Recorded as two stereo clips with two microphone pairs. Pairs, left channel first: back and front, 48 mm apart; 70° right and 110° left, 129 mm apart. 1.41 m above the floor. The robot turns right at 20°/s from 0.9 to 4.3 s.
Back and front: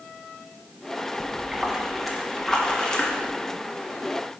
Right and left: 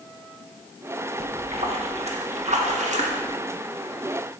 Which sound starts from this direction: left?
A splash, at 1.2 s.